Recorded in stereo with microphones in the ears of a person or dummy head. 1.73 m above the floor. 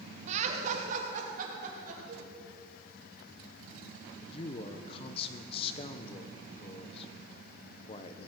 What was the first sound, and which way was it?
Laughter, 45° right (ahead or behind).